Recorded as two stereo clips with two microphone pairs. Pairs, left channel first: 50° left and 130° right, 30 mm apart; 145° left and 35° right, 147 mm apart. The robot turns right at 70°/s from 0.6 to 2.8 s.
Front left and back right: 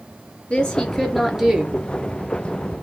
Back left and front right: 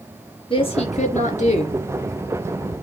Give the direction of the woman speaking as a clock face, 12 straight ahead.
9 o'clock.